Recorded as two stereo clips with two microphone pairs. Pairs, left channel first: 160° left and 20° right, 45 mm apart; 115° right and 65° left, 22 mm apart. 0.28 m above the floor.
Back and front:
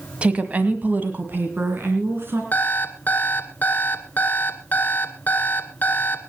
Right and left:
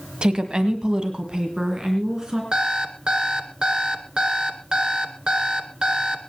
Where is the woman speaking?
35° left, 1.6 m; by 2.4 s 5° left, 3.5 m.